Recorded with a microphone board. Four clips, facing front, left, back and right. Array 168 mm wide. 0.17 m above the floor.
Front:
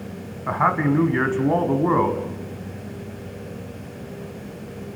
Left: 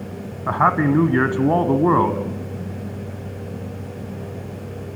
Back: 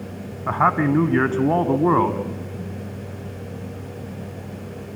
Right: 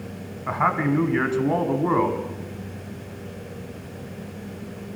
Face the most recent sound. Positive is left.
turn(degrees=115)